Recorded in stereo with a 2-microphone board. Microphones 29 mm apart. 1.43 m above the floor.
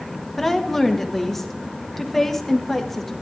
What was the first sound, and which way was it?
A woman speaking, 10° left (ahead or behind).